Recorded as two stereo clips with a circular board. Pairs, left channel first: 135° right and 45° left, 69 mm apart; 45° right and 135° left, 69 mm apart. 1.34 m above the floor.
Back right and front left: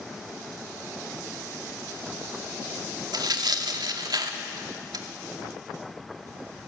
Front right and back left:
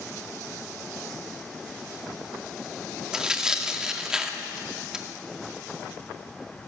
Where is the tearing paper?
55° left, 2 m.